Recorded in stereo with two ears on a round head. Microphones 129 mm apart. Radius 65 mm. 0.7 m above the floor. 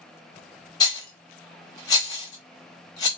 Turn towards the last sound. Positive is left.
turn(degrees=25)  # may be behind; listen again after turning